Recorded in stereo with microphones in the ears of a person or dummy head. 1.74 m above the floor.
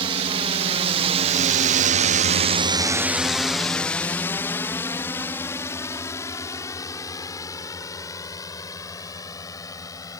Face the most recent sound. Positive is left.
turn(degrees=20)  # may be behind; listen again after turning